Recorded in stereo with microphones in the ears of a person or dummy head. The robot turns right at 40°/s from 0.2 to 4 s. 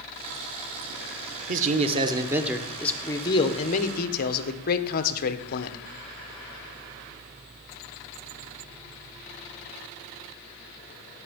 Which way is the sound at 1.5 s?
45° right.